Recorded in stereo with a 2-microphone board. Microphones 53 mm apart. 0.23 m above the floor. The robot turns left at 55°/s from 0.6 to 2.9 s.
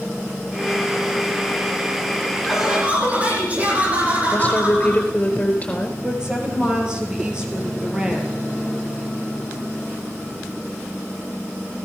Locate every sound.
2.5 s laughter: centre (ahead or behind), 8.5 m; by 5.0 s 25° right (ahead or behind), 8.5 m
4.3 s a woman speaking: 25° left (ahead or behind), 4.5 m
6.0 s a woman speaking: 15° right (ahead or behind), 5 m